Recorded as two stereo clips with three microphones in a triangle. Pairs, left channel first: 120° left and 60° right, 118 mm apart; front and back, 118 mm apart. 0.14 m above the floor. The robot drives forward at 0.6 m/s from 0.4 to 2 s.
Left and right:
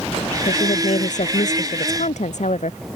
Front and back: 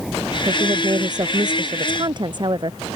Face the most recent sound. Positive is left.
turn(degrees=130)